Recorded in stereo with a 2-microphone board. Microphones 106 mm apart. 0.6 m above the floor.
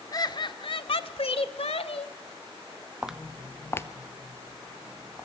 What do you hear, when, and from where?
0.1 s laughter: 35° left (ahead or behind), 1.2 m; by 2.1 s 65° left (ahead or behind), 2.0 m
3.0 s footsteps: 10° right (ahead or behind), 0.5 m; by 5.2 s 30° left (ahead or behind), 2 m